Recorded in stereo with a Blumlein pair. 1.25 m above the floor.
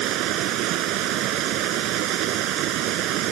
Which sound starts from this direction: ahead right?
Running water, at 0.0 s.